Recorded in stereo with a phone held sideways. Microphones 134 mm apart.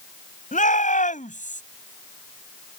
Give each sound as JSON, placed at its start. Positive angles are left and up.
{"t": 0.5, "sound": "a shout", "side_deg": 70}